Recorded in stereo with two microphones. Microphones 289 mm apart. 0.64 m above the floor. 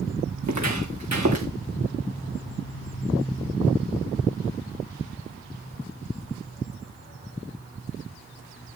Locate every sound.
0.4 s footsteps: 70° right (ahead or behind), 3.5 m; by 1.5 s 65° right (ahead or behind), 4 m